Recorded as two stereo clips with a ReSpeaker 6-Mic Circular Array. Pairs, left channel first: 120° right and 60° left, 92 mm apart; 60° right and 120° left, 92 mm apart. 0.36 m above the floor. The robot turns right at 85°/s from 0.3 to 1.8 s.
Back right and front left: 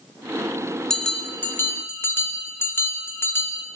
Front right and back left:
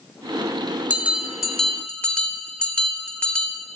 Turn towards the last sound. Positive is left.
turn(degrees=-120)